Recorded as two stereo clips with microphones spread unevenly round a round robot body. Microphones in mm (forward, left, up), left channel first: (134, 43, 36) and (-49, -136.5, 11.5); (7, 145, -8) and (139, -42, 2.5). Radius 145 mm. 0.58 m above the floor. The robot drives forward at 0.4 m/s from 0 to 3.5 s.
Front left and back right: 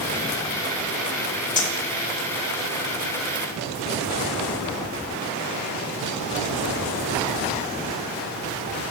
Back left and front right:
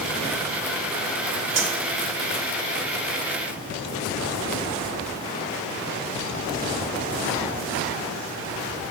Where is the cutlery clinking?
20° right, 1.1 m.